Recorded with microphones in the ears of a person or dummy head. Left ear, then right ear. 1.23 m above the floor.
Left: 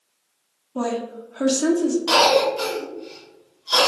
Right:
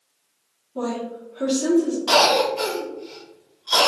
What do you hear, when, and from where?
0.8 s a woman speaking: 60° left (ahead or behind), 0.7 m
2.1 s a cough: 10° right (ahead or behind), 1.2 m